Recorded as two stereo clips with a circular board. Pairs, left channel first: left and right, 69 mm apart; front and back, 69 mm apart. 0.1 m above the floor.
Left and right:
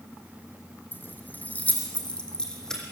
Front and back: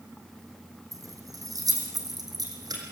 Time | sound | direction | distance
0.9 | keys jangling | 150° left | 3 m